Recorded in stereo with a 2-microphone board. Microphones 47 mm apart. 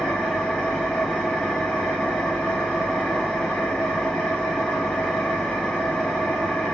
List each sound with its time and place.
0.0 s an engine running: 15° left (ahead or behind), 1.0 m